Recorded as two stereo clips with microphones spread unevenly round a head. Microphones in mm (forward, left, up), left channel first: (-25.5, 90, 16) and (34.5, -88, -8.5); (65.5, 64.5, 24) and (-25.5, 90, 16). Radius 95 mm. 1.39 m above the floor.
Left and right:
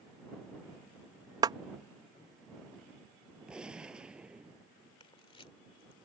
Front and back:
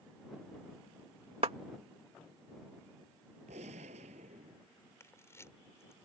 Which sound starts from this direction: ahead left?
A camera shutter, at 5.0 s.